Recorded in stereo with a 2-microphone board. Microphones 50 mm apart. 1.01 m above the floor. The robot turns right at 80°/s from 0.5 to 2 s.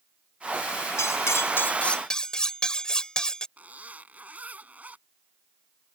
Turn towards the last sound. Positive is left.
turn(degrees=-30)  # may be behind; listen again after turning